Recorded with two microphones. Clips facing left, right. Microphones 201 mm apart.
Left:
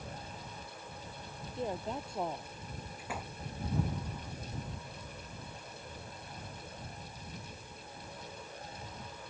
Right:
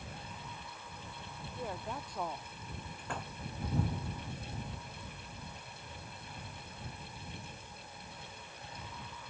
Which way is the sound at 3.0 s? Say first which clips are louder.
Even; 5° left (ahead or behind).